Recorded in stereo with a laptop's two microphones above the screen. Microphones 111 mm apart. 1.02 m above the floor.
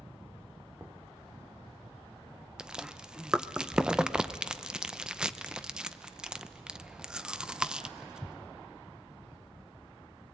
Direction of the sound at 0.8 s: 15° right (ahead or behind).